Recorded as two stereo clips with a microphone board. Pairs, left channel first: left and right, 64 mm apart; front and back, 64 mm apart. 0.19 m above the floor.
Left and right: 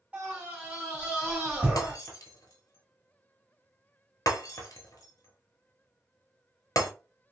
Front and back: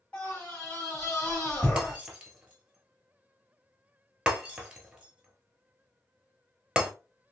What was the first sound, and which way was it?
A scream, 45° right.